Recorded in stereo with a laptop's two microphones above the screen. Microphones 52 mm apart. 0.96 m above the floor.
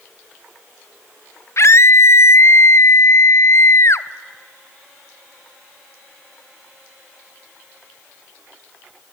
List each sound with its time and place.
1.6 s a scream: 55° left (ahead or behind), 0.6 m